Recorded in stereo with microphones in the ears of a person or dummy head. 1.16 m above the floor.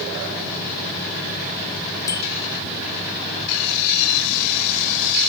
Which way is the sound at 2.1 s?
20° left (ahead or behind).